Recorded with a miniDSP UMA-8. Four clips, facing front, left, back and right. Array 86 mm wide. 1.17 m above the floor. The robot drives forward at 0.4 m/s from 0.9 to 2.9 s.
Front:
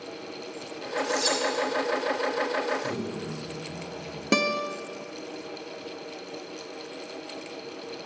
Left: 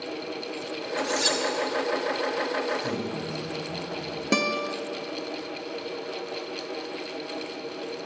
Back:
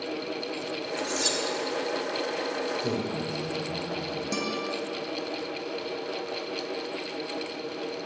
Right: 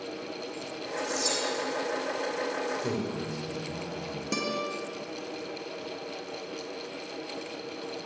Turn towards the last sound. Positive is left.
turn(degrees=30)